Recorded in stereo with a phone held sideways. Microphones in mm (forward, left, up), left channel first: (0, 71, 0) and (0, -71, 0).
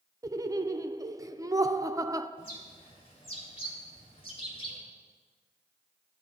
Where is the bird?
40° left (ahead or behind), 2.5 m.